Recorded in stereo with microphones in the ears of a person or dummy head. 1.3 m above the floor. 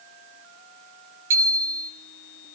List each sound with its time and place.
1.3 s a bicycle bell: 15° right (ahead or behind), 8.5 m